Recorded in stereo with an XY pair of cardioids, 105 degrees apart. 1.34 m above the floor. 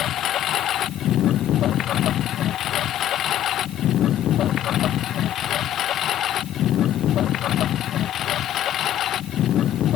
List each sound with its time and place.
0.0 s a lawn mower: 70° left; by 10.0 s 65° left